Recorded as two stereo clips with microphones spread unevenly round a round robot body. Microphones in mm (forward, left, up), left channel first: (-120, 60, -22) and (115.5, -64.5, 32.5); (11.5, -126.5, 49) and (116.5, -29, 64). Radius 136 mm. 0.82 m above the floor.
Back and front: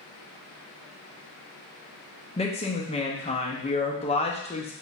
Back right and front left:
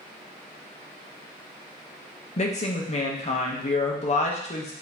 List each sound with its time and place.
2.4 s a woman speaking: 150° right, 0.9 m